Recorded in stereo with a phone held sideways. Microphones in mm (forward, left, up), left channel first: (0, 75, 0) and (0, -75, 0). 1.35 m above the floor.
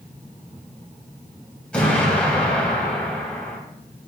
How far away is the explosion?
About 2 m.